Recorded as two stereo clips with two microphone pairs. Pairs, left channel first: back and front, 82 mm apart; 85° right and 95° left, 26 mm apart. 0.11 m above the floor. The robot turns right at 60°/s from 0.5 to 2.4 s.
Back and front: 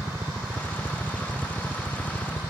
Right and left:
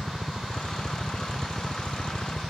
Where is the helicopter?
30° left; by 2.5 s 145° left.